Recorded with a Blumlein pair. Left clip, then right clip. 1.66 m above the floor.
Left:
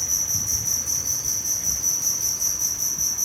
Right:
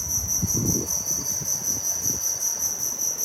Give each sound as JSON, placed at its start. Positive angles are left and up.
{"t": 0.0, "sound": "an insect", "azimuth_deg": 65, "distance_m": 2.5}